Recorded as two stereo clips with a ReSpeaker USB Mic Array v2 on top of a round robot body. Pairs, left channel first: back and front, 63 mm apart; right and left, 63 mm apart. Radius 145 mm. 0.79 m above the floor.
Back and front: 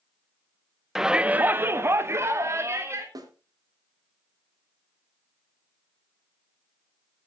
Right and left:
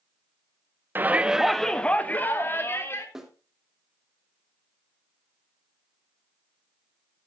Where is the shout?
80° left, 0.9 m; by 3.0 s 40° right, 1.9 m.